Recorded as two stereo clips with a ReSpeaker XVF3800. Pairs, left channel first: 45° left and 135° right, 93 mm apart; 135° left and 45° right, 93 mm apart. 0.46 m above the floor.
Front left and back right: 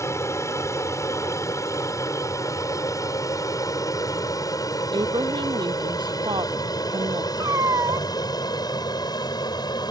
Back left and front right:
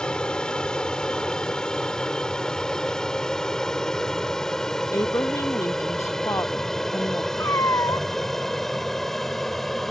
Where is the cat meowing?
175° right.